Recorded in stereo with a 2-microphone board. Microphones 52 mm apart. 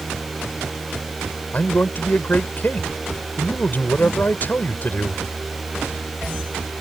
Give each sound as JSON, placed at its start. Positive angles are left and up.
{"t": 1.5, "sound": "a man speaking", "side_deg": 40}